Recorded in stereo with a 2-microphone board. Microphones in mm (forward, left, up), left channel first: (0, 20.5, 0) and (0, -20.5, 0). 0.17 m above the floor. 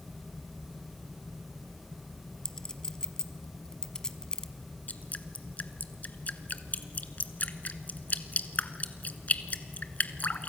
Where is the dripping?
40° left (ahead or behind), 1.0 m.